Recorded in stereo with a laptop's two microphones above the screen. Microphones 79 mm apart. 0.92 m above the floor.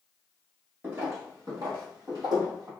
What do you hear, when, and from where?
0.8 s footsteps: 30° right (ahead or behind), 1.1 m; by 2.7 s 60° right (ahead or behind), 1.6 m